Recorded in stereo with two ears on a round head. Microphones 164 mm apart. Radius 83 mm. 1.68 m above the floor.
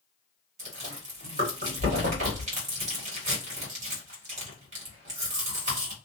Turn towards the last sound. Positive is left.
turn(degrees=-45)  # may be behind; listen again after turning